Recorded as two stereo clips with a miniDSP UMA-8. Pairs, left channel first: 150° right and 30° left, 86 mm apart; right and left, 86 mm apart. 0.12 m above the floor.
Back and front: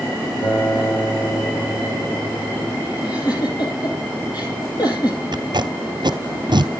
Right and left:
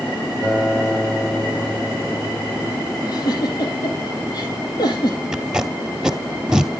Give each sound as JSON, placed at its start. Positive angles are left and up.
{"t": 0.4, "sound": "a guitar", "azimuth_deg": -175, "distance_m": 3.5}
{"t": 3.0, "sound": "a giggle", "azimuth_deg": -120, "distance_m": 3.5}
{"t": 5.3, "sound": "tape being pulled", "azimuth_deg": 10, "distance_m": 0.9}